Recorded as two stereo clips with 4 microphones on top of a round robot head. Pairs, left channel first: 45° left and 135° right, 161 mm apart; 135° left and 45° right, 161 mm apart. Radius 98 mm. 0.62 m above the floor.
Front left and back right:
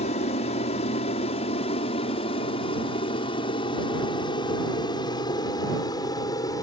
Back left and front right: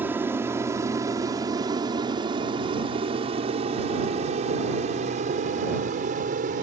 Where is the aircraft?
25° left; by 6.7 s 20° right.